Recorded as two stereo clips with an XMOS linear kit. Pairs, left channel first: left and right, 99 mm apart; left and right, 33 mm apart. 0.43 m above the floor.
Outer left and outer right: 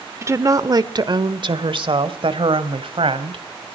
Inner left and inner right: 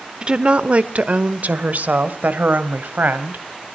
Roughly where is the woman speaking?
Right.